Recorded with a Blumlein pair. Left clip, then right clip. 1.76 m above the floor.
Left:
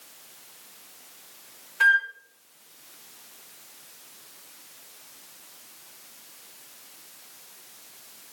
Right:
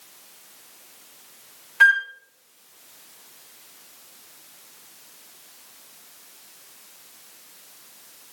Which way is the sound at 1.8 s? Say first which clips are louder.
Right 4 dB; 70° right.